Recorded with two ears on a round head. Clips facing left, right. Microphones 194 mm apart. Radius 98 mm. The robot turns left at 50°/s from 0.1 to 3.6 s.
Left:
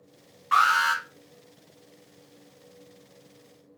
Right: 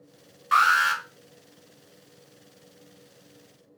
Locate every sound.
0.5 s an alarm: 20° right (ahead or behind), 1.8 m; by 1.0 s 15° right (ahead or behind), 1.8 m